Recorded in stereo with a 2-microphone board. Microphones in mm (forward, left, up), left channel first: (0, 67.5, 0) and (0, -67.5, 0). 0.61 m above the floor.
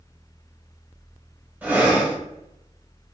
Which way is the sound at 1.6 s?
10° right (ahead or behind).